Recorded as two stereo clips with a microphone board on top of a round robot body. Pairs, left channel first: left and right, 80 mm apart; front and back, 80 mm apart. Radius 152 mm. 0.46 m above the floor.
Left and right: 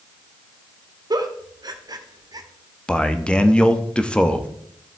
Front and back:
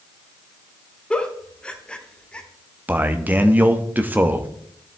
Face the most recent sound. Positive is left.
turn(degrees=150)